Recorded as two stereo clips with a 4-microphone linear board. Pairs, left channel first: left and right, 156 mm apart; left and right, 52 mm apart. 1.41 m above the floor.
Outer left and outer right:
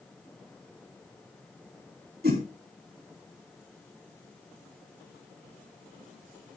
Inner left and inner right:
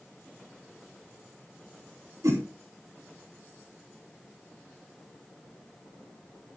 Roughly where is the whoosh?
Right.